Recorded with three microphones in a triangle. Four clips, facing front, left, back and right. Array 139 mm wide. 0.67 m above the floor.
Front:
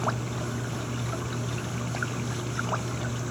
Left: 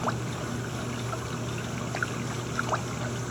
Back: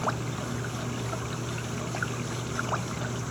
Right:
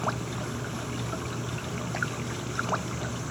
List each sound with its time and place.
Only background noise.